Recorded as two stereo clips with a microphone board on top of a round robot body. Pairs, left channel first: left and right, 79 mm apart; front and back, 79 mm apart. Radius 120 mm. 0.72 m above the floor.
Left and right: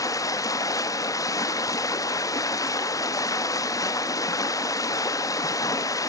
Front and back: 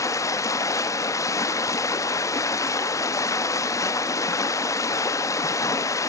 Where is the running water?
45° left, 0.9 m.